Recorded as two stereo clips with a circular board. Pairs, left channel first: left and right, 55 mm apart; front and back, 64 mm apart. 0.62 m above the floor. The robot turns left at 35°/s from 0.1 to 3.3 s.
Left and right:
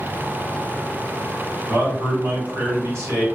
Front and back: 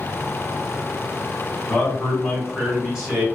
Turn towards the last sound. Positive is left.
turn(degrees=-125)